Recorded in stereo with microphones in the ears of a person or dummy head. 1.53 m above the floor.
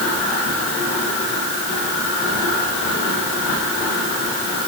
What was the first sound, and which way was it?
Only background noise.